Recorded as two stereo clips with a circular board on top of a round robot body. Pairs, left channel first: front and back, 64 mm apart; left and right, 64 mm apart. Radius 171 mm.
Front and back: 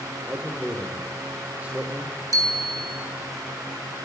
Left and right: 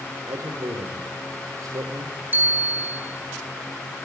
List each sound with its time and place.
0.3 s a man speaking: 110° right, 4 m
2.3 s a bicycle bell: 150° right, 6.5 m